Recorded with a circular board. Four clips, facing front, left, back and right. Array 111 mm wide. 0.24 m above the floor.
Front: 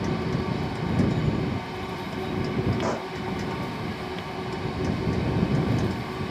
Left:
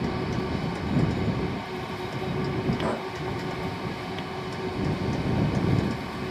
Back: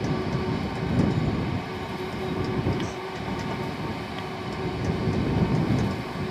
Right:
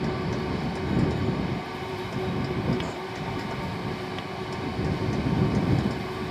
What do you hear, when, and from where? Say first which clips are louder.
2.8 s a pop: left 4 dB, front 4 dB; 40° left